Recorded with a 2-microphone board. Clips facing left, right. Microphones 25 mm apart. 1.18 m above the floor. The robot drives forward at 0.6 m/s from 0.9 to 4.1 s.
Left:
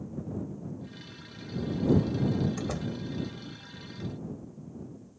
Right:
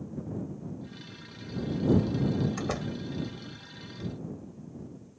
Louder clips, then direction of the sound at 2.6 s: Right 1 dB; 25° right (ahead or behind).